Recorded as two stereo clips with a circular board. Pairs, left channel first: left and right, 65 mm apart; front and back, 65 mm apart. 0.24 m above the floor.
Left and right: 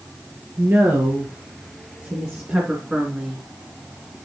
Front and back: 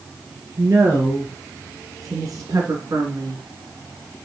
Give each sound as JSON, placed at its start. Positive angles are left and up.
{"t": 0.6, "sound": "a woman speaking", "azimuth_deg": -135, "distance_m": 4.0}